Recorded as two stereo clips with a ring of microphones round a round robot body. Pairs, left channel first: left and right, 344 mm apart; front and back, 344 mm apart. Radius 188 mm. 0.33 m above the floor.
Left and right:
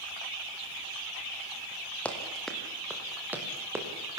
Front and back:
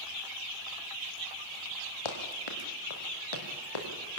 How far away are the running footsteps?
About 5 m.